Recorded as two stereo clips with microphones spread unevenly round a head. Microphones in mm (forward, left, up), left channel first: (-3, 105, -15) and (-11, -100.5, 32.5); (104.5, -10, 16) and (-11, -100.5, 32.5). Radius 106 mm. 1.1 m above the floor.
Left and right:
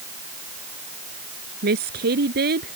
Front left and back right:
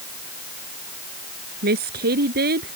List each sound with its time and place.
1.6 s a woman speaking: 135° right